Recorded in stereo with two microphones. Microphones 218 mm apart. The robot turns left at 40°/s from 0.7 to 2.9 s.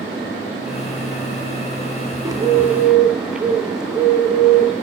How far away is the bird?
About 0.7 m.